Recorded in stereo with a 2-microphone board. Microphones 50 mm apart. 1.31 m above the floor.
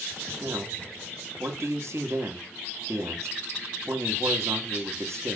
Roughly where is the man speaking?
Right.